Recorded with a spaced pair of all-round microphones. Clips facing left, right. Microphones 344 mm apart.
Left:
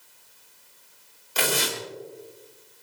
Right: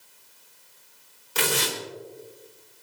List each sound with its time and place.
1.4 s tearing paper: 60° right (ahead or behind), 4 m